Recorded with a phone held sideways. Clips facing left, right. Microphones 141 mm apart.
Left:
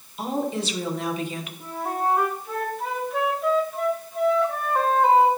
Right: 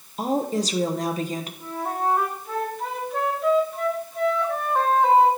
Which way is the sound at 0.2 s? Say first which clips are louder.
Right 3 dB; 40° right (ahead or behind).